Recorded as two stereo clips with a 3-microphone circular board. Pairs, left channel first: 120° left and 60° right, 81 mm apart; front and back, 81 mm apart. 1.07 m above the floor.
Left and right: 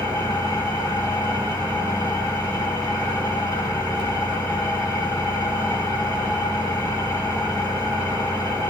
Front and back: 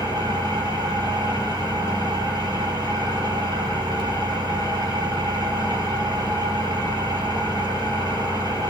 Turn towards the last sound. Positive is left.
turn(degrees=150)